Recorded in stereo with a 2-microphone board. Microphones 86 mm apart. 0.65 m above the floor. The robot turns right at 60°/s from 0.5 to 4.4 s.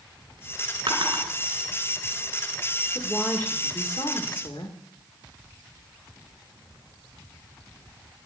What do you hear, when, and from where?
0.9 s a drawer: 65° right (ahead or behind), 3 m; by 1.2 s 85° right, 3 m
3.0 s a woman speaking: 5° right, 1.6 m; by 4.8 s 80° left, 1.6 m